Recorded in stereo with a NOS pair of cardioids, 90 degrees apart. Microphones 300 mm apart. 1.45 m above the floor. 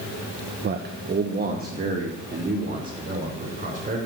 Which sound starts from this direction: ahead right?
A man speaking, at 0.6 s.